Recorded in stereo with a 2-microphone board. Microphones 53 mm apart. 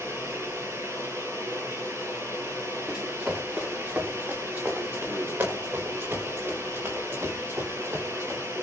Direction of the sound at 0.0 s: 55° right (ahead or behind).